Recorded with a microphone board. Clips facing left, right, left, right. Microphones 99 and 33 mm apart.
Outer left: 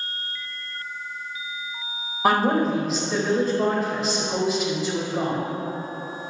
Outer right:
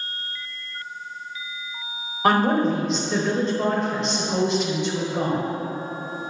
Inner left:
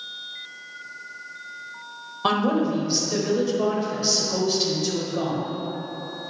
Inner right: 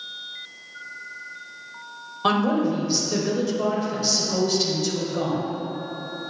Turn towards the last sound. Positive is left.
turn(degrees=5)  # may be behind; listen again after turning